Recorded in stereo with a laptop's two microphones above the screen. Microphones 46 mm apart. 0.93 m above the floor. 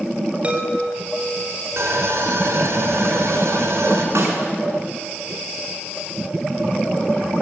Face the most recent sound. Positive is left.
turn(degrees=-90)